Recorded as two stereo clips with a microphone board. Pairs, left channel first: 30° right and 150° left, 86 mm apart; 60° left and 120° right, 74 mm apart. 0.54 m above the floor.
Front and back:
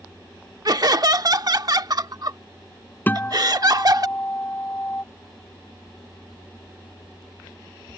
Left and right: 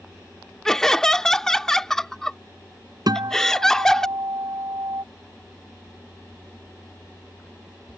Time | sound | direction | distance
0.7 | laughter | 140° left | ?
3.1 | a guitar | 100° right | ?